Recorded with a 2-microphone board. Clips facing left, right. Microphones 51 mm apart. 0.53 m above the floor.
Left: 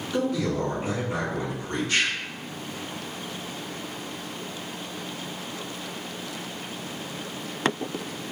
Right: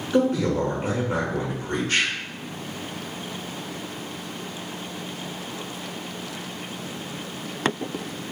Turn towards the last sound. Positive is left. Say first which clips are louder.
# right 5 dB
turn(degrees=-35)  # may be behind; listen again after turning